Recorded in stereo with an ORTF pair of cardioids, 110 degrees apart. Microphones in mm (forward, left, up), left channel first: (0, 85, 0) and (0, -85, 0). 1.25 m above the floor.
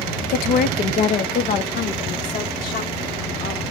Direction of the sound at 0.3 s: 60° left.